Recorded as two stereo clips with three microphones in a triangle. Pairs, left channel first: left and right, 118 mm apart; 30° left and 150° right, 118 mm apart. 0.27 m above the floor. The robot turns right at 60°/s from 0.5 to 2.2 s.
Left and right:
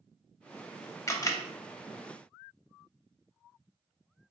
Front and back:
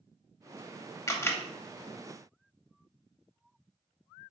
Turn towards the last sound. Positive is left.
turn(degrees=125)